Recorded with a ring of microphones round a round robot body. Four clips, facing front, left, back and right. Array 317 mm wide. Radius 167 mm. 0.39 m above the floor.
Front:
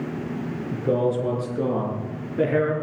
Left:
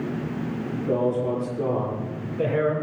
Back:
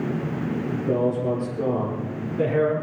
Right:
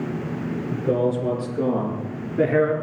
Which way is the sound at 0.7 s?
40° right.